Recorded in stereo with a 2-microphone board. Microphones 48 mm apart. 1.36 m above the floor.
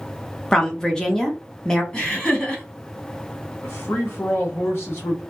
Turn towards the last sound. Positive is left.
turn(degrees=55)  # may be behind; listen again after turning